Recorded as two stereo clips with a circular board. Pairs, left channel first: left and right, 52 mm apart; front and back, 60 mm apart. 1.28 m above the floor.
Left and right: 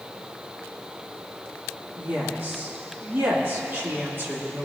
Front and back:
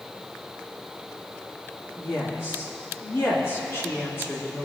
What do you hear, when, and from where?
2.0 s a woman speaking: 45° right, 2 m